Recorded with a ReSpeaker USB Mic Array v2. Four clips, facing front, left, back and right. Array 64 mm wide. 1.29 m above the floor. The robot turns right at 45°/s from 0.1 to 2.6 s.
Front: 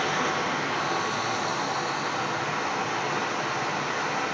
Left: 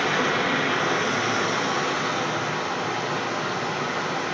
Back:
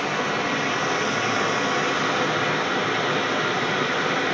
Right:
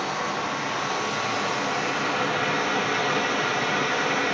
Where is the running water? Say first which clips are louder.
Left 5 dB, back 2 dB; 85° left, 6 m; by 4.3 s 165° right, 6 m.